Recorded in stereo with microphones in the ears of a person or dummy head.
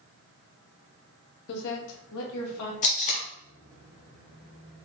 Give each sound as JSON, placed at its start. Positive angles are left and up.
{"t": 1.5, "sound": "a woman speaking", "side_deg": 60, "distance_m": 0.9}
{"t": 2.8, "sound": "tape being pulled", "side_deg": 40, "distance_m": 1.1}